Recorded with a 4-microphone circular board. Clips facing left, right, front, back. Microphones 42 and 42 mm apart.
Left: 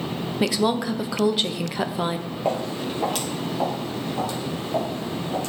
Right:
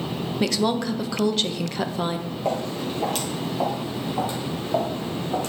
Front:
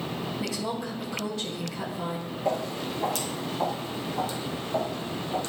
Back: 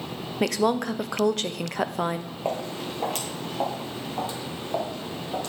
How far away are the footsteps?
About 2.5 m.